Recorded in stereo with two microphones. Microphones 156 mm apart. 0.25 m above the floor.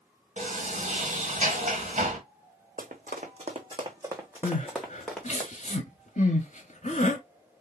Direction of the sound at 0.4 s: 50° right (ahead or behind).